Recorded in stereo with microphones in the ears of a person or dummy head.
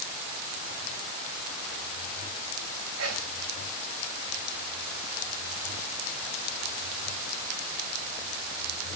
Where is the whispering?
85° right, 5.5 m.